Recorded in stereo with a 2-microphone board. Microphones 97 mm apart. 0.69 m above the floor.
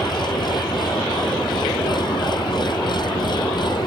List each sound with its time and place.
0.0 s an engine running: 50° left (ahead or behind)